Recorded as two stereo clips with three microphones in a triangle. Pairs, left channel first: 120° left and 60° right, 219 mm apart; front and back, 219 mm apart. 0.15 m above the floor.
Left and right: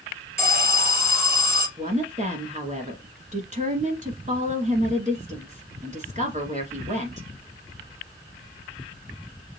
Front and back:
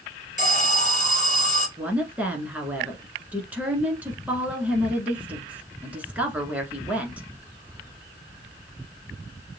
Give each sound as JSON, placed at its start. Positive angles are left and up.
{"t": 0.4, "sound": "an alarm", "azimuth_deg": 165, "distance_m": 1.6}
{"t": 1.8, "sound": "a woman speaking", "azimuth_deg": -100, "distance_m": 1.4}